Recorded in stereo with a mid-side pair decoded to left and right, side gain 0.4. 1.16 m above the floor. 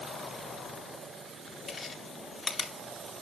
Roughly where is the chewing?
Ahead left.